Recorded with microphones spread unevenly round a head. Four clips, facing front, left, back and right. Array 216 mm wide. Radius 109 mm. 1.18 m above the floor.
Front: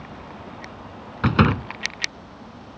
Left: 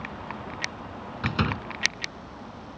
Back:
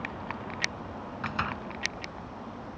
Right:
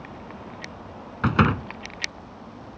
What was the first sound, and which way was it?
A door slam, 25° right.